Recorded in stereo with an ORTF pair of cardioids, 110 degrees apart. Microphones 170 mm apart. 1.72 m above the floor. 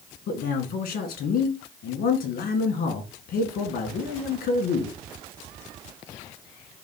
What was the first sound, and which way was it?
A man speaking, 70° left.